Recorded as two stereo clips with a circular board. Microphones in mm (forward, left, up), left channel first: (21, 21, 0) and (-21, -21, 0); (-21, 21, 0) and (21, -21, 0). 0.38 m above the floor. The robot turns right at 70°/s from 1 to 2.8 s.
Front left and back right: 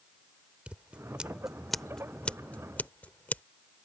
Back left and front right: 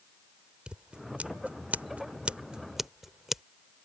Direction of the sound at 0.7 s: 95° right.